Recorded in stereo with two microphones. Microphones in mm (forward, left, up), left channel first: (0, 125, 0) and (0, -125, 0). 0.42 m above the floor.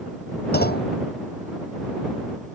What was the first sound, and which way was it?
A clunk, 40° left (ahead or behind).